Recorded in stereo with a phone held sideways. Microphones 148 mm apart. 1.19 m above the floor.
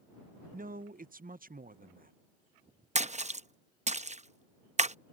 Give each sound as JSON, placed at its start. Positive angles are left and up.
{"t": 0.5, "sound": "a man speaking", "side_deg": -70}
{"t": 3.0, "sound": "a splash", "side_deg": -50}